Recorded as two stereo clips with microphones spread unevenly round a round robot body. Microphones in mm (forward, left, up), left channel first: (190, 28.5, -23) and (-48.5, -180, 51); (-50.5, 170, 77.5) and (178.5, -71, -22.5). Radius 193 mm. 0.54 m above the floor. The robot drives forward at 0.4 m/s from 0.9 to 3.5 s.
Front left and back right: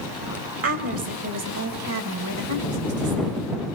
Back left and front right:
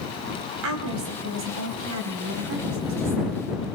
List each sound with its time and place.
0.6 s a woman speaking: 90° right, 3.5 m; by 3.4 s 105° right, 3.5 m